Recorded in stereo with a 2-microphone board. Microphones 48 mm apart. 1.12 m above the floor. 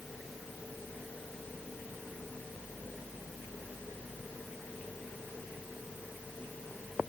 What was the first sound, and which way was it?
Only background noise.